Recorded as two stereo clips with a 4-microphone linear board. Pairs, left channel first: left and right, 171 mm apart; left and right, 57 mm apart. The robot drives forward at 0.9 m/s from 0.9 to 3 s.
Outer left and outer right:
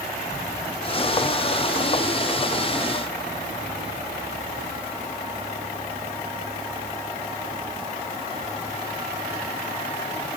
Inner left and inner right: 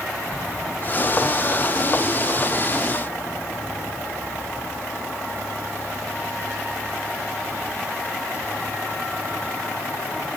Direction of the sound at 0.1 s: 10° left (ahead or behind).